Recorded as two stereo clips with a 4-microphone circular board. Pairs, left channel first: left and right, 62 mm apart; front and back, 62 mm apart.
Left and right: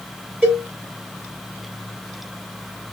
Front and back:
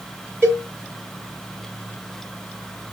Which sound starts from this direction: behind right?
A cowbell, at 0.4 s.